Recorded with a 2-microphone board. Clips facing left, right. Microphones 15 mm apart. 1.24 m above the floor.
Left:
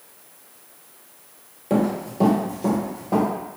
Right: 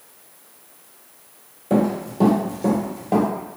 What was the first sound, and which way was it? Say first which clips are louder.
Running footsteps: right 2 dB; 15° left (ahead or behind).